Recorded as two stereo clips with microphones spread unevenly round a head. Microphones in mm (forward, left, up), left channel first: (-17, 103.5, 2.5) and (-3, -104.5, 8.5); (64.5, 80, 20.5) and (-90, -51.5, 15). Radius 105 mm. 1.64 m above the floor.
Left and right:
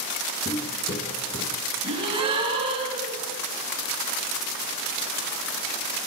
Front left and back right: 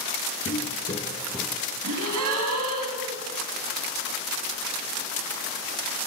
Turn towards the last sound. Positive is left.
turn(degrees=-150)